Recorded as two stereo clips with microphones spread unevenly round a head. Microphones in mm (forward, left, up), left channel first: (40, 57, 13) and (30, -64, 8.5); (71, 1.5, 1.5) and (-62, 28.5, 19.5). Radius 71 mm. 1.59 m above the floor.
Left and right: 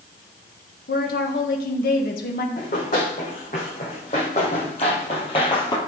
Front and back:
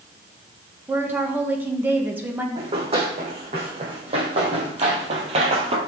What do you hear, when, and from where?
0.9 s a woman speaking: 95° left, 1.5 m
2.5 s running footsteps: 125° left, 6.5 m; by 5.8 s 140° left, 2.5 m